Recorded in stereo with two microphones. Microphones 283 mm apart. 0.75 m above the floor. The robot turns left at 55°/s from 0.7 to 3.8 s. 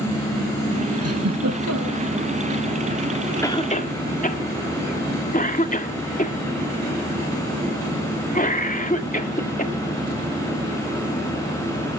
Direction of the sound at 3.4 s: 10° left (ahead or behind).